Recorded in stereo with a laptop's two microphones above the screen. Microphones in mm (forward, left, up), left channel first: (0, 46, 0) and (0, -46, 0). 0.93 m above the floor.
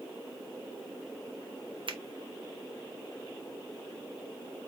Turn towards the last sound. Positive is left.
turn(degrees=-65)  # may be behind; listen again after turning